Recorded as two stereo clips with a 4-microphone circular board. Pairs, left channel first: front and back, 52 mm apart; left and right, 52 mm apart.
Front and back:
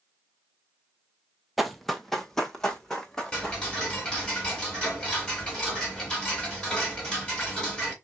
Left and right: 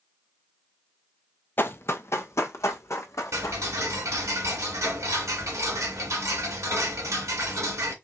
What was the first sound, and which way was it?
Running footsteps, 90° left.